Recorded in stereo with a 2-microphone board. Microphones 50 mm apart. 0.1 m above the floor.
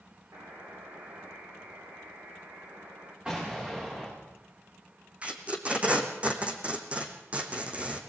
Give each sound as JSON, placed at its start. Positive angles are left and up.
{"t": 0.3, "sound": "a buzzer", "side_deg": -65, "distance_m": 5.5}
{"t": 3.2, "sound": "an explosion", "side_deg": -20, "distance_m": 10.0}
{"t": 5.2, "sound": "tape being pulled", "side_deg": -25, "distance_m": 3.0}